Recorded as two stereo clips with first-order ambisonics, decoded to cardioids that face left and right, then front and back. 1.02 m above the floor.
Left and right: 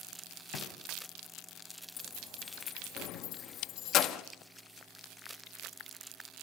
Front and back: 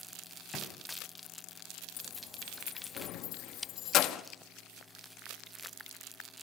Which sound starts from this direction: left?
A drawer, at 0.5 s.